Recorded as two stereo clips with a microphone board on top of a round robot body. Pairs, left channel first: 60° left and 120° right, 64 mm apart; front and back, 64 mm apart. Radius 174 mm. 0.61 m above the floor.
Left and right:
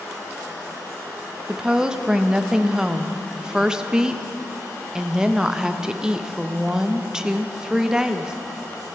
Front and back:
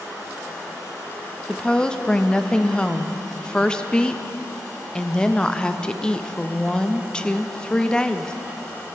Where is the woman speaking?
55° right, 0.7 m.